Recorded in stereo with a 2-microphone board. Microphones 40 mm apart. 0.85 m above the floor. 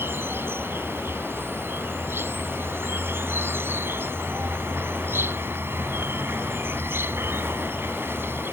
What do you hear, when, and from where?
0.0 s an insect: 65° right (ahead or behind)